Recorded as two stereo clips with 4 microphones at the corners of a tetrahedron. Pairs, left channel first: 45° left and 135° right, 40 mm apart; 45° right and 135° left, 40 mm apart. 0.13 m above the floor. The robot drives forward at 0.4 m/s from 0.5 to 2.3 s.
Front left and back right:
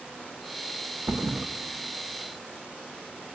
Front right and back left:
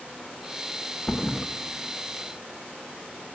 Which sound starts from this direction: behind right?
A thud, at 1.1 s.